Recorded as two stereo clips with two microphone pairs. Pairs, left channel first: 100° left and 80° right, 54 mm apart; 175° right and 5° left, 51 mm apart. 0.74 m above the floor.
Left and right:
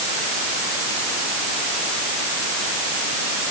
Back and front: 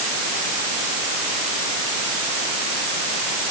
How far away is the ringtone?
No ringtone in this recording.